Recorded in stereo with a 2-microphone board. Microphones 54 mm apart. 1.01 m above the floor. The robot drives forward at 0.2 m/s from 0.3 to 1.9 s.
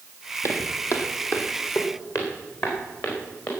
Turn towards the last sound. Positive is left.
turn(degrees=70)  # may be behind; listen again after turning